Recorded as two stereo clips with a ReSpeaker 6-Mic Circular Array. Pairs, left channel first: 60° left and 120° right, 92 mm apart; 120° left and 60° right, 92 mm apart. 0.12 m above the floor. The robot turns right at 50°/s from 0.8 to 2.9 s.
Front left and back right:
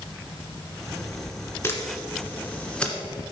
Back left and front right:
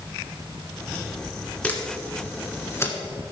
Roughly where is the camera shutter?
Ahead left.